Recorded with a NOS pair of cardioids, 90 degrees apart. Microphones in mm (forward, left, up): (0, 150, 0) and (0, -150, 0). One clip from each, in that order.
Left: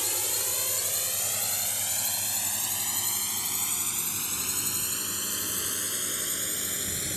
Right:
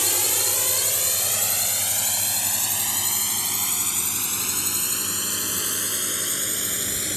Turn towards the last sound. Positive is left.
turn(degrees=-40)